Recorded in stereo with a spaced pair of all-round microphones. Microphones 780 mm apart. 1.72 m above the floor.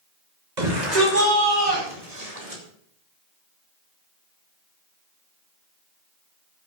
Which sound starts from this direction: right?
A shout, at 0.6 s.